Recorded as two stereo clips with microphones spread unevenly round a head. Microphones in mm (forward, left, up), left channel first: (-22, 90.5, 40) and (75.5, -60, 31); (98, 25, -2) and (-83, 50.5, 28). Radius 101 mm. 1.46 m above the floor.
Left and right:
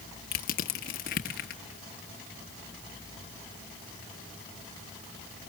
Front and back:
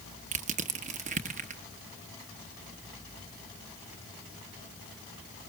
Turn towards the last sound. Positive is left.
turn(degrees=155)